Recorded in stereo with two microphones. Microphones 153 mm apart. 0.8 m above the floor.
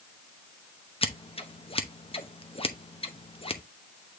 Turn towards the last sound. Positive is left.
turn(degrees=40)  # may be behind; listen again after turning